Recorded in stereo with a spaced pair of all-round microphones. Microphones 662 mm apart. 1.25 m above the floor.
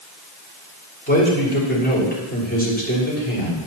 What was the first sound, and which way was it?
A man speaking, 15° left (ahead or behind).